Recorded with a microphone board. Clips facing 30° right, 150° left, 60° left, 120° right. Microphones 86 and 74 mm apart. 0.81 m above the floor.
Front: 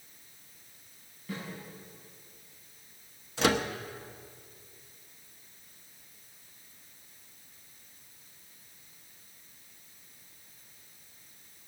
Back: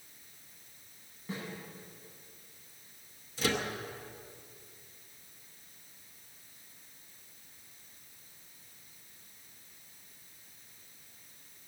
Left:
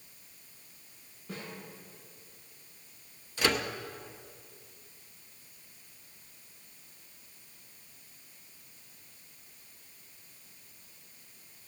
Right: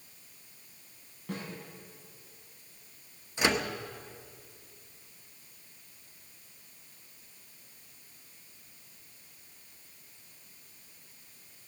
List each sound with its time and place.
1.3 s a snare drum: 145° right, 7.5 m
3.4 s a microwave: 50° right, 1.0 m